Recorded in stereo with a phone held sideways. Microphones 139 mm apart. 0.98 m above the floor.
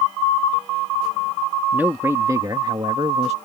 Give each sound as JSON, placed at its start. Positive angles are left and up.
{"t": 1.7, "sound": "a man speaking", "side_deg": -15}